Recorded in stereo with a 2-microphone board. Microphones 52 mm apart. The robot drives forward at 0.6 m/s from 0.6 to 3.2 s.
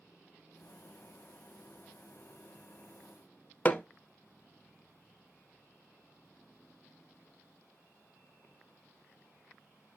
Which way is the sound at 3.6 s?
30° left (ahead or behind).